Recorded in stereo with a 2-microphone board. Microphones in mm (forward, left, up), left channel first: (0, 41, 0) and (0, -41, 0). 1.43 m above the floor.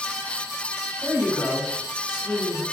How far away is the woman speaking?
About 1.5 m.